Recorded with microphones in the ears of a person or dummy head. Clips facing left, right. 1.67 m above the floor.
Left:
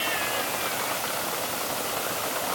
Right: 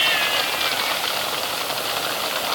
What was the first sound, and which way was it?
Only background noise.